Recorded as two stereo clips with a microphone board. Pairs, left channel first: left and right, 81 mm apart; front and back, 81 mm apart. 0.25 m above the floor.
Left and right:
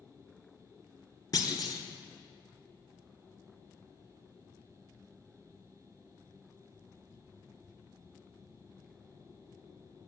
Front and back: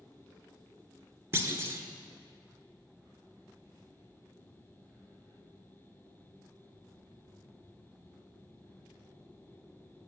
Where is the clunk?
125° left, 0.9 m.